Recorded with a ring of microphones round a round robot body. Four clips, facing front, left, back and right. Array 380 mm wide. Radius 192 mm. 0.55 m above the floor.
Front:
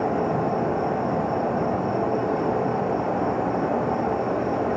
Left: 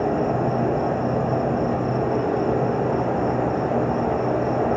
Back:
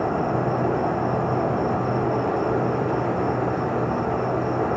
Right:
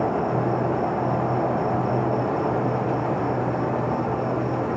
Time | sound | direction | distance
0.0 | an insect | 115° left | 3 m